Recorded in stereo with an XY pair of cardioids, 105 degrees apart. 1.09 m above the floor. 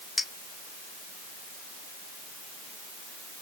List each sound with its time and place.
0.2 s a clink: 20° left, 1.8 m